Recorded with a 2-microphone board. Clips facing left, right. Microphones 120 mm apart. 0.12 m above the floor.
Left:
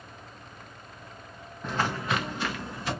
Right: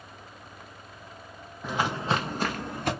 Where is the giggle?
I don't hear a giggle.